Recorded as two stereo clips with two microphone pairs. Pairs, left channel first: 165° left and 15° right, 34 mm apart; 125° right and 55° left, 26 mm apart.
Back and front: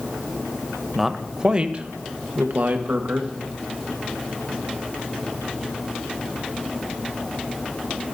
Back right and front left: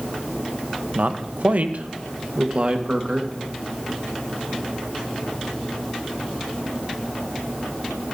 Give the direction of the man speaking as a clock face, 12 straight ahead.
10 o'clock.